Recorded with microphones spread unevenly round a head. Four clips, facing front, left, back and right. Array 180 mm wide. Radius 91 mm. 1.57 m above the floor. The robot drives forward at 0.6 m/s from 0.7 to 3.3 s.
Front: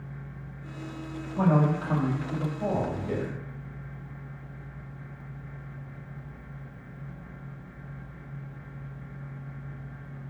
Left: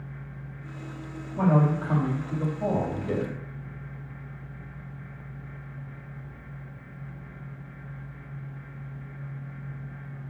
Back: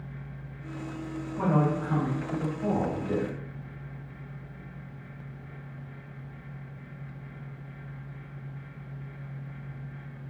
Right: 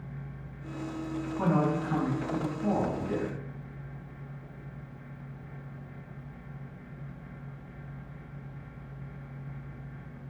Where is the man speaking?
50° left, 3.5 m; by 3.4 s 65° left, 3 m.